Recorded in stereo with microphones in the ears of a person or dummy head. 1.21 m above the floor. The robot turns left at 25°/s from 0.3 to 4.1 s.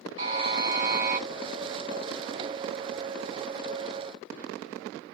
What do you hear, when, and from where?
0.2 s a buzzer: 35° right (ahead or behind), 1.8 m; by 1.2 s 10° right (ahead or behind), 1.8 m